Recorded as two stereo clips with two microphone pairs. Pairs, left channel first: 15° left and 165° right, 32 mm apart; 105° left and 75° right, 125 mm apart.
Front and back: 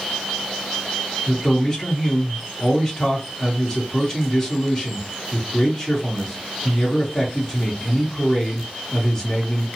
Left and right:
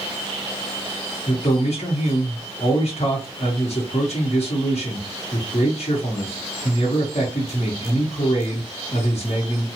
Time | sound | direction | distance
1.3 | a man speaking | 85° left | 1.0 m